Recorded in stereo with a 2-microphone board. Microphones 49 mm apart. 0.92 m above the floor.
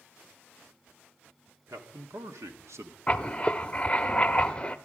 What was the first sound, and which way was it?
A man speaking, 80° right.